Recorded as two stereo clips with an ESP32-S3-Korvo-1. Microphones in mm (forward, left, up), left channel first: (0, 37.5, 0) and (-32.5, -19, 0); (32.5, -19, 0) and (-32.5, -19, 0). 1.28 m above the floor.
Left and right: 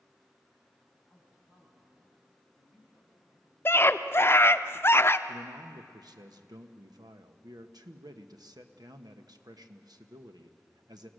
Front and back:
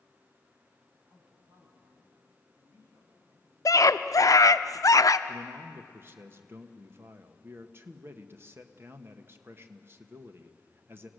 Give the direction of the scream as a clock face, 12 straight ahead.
11 o'clock.